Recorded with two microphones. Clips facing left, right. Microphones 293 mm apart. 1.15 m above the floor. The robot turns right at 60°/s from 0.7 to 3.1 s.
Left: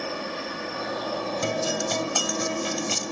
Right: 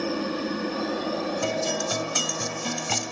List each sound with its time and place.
0.0 s a helicopter: 55° right; by 3.1 s 90° left
1.4 s a guitar: 160° left; by 3.1 s 100° right